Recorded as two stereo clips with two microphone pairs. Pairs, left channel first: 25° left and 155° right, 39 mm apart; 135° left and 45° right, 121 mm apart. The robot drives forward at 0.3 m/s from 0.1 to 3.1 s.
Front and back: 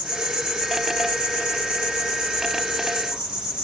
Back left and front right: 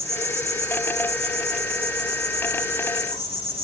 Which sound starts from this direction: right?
An insect, at 0.0 s.